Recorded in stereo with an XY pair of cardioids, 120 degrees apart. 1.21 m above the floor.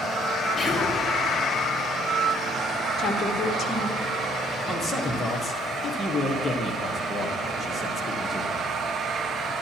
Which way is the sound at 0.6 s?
Straight ahead.